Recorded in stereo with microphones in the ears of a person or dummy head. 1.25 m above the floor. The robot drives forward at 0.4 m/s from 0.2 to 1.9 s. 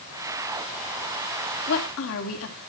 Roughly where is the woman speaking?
Left.